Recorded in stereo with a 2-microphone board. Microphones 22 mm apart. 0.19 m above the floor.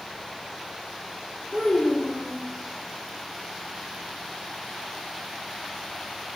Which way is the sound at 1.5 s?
65° left (ahead or behind).